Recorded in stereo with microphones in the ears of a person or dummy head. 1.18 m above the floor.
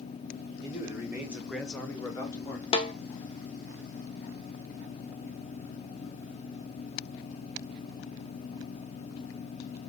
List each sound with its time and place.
0.6 s a man speaking: 10° right (ahead or behind), 2 m; by 2.6 s 15° left (ahead or behind), 1.3 m
2.7 s a snare drum: 20° left (ahead or behind), 0.6 m